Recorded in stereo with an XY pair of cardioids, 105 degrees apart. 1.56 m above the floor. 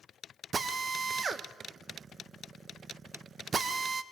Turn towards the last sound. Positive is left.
turn(degrees=-40)